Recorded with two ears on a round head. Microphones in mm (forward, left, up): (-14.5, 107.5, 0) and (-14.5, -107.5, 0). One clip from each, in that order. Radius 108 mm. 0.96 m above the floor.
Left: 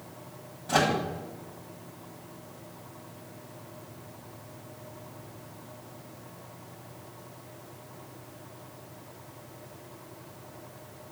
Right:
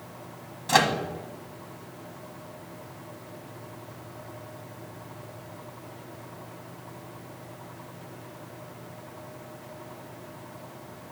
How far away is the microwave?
About 1.5 m.